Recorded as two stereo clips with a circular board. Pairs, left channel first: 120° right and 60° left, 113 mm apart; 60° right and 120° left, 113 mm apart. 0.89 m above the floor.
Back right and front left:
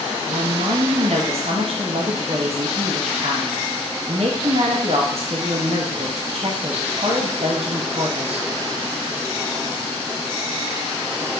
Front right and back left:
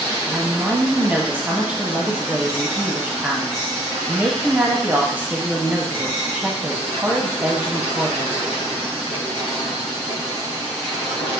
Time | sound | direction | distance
0.3 | a woman speaking | 45° left | 0.8 m